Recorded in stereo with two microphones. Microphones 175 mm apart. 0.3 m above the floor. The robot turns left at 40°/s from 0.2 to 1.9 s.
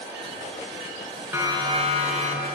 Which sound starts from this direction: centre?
A siren, at 1.3 s.